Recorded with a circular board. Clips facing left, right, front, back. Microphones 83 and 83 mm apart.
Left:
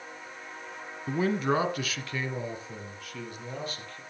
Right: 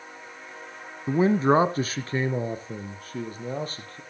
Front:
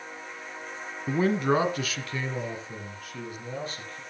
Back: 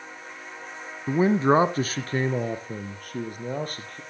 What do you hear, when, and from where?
1.1 s a man speaking: 115° right, 1.0 m; by 4.0 s 145° right, 4.5 m